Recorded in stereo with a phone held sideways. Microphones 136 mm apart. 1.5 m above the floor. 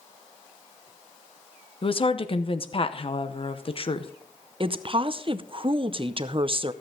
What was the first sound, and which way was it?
A woman speaking, 45° left (ahead or behind).